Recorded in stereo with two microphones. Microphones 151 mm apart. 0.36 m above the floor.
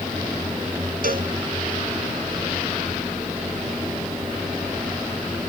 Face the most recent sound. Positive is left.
turn(degrees=-70)  # may be behind; listen again after turning